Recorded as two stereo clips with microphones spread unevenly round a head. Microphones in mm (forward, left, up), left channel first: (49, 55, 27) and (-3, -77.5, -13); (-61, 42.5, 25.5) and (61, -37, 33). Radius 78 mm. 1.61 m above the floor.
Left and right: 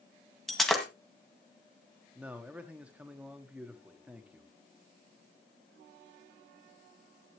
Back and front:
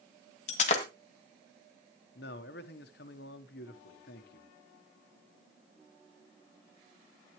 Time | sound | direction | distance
0.5 | breaking glass | 130° left | 1.7 m
2.1 | a man speaking | 165° left | 1.3 m